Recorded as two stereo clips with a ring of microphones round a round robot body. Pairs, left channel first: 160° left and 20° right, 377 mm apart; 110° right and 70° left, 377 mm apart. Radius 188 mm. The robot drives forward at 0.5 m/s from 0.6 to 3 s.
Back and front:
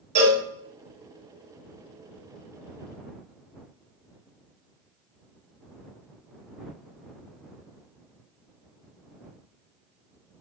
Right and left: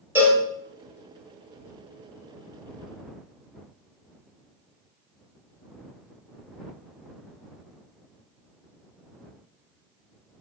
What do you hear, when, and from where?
0.1 s a cowbell: 15° right, 1.2 m